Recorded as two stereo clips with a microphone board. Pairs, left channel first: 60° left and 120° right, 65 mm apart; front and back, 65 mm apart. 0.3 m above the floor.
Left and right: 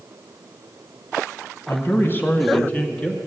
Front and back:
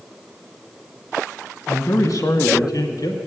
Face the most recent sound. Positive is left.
turn(degrees=-5)